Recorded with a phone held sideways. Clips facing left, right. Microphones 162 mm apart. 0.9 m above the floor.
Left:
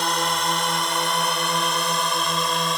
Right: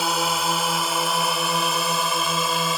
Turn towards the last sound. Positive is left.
turn(degrees=-5)  # may be behind; listen again after turning